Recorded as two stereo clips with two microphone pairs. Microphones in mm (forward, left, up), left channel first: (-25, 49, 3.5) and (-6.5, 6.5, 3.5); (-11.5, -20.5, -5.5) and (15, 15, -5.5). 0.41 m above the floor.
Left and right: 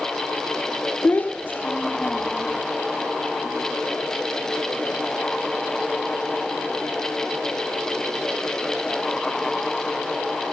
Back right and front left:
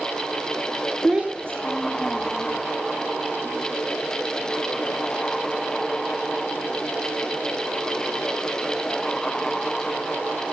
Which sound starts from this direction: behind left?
A child speaking, at 1.0 s.